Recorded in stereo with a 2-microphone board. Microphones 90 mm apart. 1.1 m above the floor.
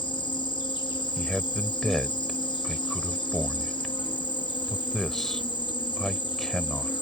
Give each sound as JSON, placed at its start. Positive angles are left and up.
{"t": 0.0, "sound": "an insect", "side_deg": 60}
{"t": 1.2, "sound": "a man speaking", "side_deg": 5}